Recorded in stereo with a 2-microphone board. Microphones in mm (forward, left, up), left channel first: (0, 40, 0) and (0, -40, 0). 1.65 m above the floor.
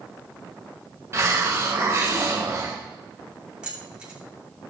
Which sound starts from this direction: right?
A hiss, at 1.1 s.